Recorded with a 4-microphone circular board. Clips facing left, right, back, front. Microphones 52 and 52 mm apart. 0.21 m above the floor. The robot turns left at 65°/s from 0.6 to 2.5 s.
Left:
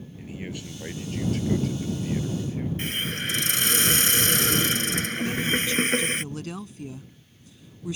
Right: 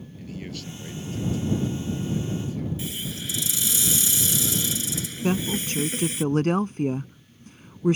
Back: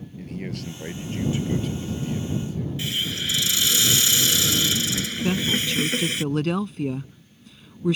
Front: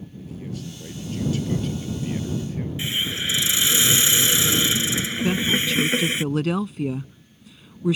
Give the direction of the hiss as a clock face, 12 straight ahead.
10 o'clock.